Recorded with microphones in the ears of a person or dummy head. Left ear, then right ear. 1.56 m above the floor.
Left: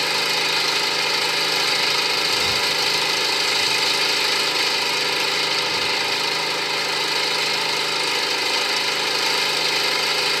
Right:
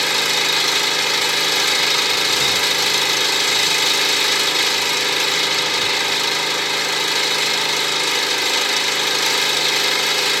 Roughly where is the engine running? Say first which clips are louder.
Right 3 dB; centre.